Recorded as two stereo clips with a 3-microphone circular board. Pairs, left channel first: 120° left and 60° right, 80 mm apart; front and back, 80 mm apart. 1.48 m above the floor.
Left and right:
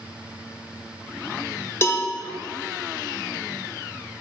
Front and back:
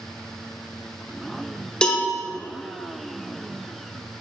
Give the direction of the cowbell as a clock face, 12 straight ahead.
9 o'clock.